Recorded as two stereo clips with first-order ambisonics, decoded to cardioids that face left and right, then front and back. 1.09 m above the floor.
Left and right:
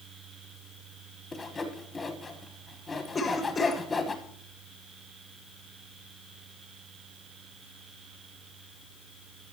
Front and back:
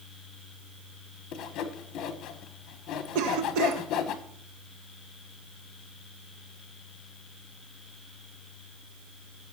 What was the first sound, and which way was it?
Sawing, 20° left.